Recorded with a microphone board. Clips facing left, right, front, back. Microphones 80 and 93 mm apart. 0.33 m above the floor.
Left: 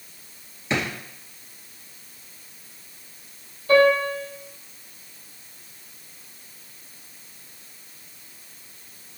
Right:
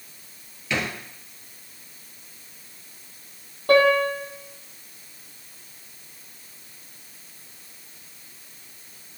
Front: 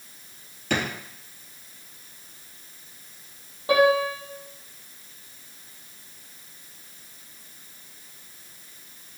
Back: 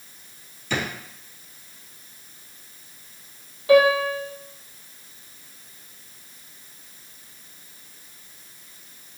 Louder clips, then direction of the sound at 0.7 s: Left 1 dB, front 1 dB; 30° left.